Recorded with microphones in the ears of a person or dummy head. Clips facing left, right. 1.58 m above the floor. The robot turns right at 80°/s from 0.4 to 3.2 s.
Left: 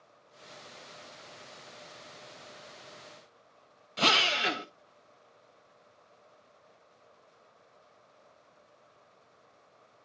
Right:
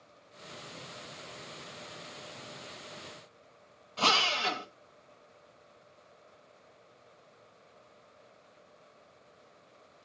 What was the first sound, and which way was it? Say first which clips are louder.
A drill: left 1 dB; 20° left (ahead or behind).